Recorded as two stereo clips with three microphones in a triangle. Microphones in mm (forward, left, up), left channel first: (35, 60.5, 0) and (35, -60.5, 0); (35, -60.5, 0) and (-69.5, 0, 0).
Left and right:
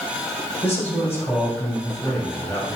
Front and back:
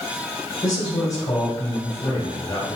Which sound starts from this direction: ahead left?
A man speaking, at 0.6 s.